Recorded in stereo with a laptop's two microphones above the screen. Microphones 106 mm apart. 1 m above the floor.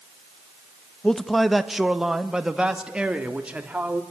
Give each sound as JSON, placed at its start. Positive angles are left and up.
{"t": 1.0, "sound": "a man speaking", "side_deg": 5, "distance_m": 1.0}